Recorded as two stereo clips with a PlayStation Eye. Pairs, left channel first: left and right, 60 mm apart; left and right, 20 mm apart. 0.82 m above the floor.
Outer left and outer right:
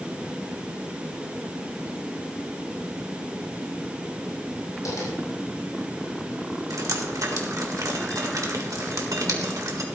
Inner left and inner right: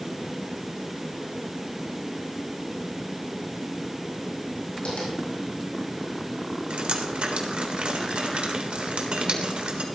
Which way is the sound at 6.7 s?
75° right (ahead or behind).